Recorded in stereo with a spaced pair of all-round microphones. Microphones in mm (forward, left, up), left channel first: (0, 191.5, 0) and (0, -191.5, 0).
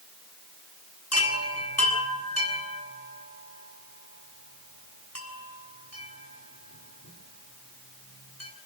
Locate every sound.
1.1 s a chime: 40° left (ahead or behind), 6.5 m